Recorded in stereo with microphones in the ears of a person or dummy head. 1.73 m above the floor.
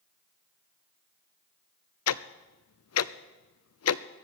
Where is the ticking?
85° left, 0.6 m.